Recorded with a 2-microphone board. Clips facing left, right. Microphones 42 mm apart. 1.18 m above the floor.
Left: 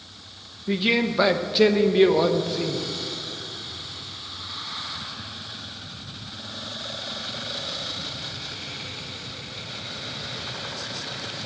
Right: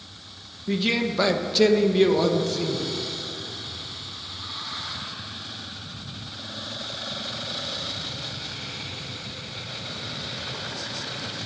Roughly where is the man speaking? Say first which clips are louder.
Left 2 dB; centre.